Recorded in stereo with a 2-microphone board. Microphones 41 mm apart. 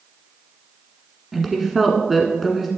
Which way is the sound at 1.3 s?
5° right (ahead or behind).